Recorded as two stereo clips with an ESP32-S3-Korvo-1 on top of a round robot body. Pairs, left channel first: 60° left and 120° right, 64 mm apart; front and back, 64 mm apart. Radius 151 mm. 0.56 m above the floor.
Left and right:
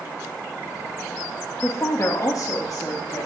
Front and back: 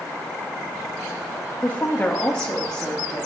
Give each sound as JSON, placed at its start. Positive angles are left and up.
{"t": 1.6, "sound": "a woman speaking", "azimuth_deg": 45, "distance_m": 0.8}